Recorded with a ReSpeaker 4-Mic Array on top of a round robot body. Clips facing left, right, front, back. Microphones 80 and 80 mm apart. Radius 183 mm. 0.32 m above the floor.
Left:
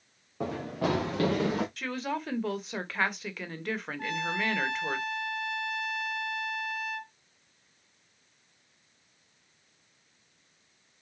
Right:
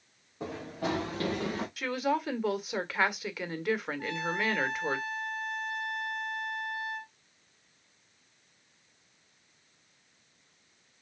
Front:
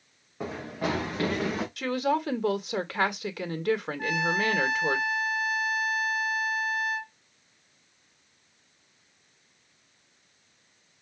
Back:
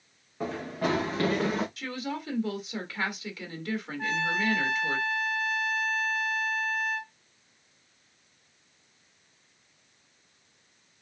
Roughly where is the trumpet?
Left.